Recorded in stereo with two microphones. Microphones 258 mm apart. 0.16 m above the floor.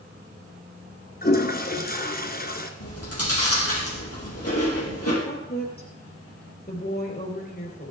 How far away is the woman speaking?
About 3.5 m.